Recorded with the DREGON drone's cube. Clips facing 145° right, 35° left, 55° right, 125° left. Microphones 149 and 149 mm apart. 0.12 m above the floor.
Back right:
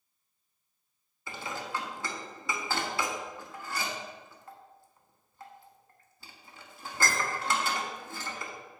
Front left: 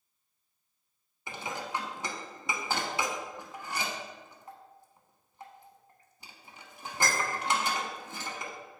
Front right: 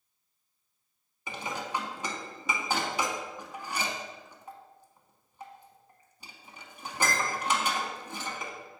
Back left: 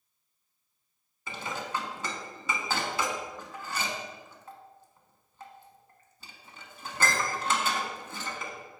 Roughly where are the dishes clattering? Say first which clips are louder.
Front left 1 dB, even; ahead.